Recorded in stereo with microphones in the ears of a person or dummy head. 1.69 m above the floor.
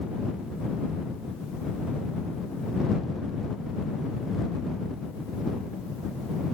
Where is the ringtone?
I don't hear a ringtone.